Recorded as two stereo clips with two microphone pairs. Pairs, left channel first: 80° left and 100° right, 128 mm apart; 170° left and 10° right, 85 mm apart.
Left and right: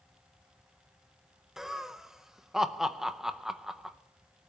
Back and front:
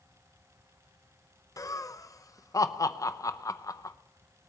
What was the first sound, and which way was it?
Laughter, straight behind.